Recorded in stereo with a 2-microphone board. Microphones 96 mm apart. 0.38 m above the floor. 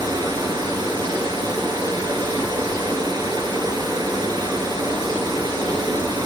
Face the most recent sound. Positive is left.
turn(degrees=-50)  # may be behind; listen again after turning